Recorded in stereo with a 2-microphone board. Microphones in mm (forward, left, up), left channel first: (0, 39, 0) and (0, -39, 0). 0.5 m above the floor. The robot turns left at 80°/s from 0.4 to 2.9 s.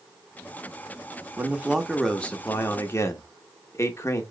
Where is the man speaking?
135° right, 0.9 m; by 4.2 s 100° left, 0.9 m.